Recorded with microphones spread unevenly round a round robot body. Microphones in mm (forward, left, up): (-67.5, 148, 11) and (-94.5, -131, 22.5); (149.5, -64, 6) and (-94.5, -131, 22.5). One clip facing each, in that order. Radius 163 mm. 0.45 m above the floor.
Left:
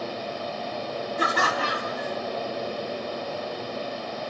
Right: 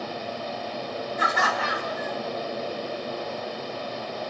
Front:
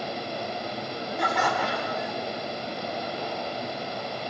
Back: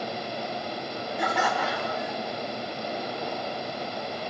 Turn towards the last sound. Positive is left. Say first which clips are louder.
# left 3 dB, even
turn(degrees=105)